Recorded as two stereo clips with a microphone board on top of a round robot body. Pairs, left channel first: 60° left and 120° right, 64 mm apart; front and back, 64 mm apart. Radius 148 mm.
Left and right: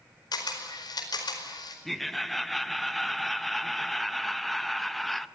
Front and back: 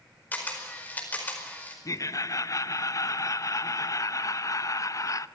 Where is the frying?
No frying in this recording.